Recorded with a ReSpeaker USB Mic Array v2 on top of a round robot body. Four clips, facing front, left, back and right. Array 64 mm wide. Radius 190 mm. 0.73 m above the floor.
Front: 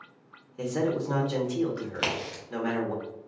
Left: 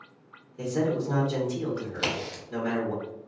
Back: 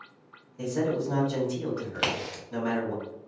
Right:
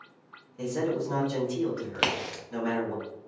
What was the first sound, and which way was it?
A man speaking, 5° left.